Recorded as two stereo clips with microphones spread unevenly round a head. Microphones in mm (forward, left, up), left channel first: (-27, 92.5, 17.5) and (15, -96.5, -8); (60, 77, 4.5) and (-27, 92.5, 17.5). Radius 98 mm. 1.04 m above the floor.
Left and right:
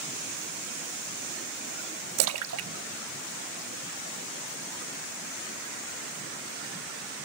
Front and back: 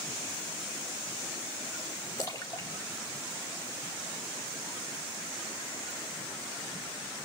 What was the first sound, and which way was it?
A splash, 85° right.